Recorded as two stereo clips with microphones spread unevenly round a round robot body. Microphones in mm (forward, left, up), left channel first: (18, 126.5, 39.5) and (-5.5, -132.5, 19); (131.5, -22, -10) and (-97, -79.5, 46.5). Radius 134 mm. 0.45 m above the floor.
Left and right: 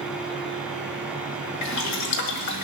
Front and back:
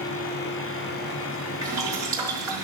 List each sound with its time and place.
1.6 s boiling: 110° left, 1.8 m